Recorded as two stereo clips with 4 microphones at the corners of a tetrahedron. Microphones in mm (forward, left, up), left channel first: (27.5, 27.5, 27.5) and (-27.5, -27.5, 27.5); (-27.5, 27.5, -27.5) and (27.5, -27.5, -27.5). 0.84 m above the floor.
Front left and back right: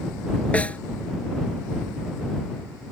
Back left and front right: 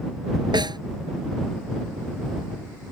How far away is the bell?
I don't hear a bell.